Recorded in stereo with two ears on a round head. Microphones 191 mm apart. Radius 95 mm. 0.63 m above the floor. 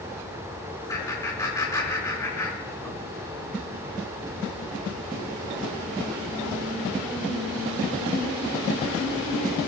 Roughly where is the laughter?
Centre.